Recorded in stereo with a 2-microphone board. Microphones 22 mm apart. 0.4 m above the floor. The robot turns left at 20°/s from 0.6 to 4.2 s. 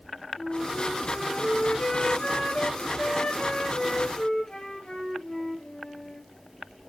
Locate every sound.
0.4 s a flute: 125° left, 1.2 m; by 6.3 s 55° left, 1.2 m